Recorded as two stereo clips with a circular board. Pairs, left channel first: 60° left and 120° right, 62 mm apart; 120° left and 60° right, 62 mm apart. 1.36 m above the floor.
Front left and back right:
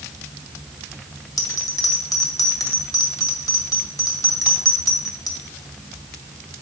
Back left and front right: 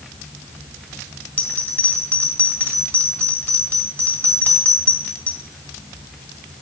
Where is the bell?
55° left, 1.8 m.